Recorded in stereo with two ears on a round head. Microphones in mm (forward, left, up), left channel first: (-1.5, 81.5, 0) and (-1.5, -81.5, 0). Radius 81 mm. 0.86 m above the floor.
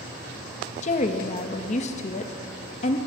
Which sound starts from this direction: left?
A woman speaking, at 0.8 s.